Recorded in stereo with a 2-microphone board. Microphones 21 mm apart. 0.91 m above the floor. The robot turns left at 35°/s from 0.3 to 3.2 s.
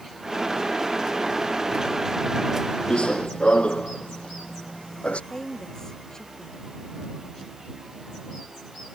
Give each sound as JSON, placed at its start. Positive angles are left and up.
{"t": 2.9, "sound": "running footsteps", "side_deg": 50}
{"t": 5.3, "sound": "a woman speaking", "side_deg": 30}